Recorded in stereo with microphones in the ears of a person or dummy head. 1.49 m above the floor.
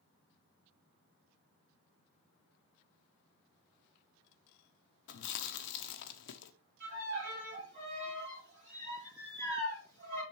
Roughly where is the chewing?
Left.